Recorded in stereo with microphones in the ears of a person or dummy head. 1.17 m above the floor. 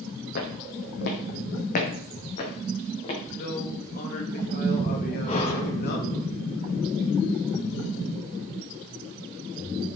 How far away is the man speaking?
About 2 m.